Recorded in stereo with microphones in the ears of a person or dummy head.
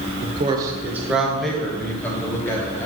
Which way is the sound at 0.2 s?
40° right (ahead or behind).